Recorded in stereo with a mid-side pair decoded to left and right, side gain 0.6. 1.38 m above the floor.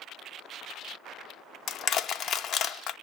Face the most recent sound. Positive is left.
turn(degrees=45)